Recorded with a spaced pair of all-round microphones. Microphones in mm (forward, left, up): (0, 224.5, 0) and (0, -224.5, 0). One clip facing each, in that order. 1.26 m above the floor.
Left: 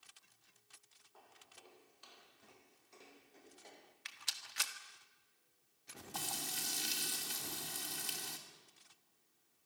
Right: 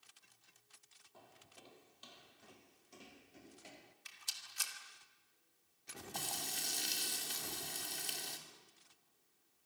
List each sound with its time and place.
1.1 s footsteps: 55° right (ahead or behind), 3 m; by 4.0 s 45° right (ahead or behind), 1.7 m
4.0 s a rattle: 75° left (ahead or behind), 1.7 m
6.1 s frying: 20° left (ahead or behind), 2.5 m